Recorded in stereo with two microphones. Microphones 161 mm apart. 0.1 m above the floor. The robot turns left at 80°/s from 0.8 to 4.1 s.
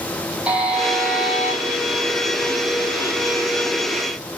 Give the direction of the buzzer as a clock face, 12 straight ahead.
6 o'clock.